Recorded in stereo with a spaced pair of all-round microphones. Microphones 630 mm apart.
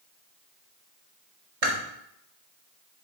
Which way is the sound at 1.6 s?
70° right (ahead or behind).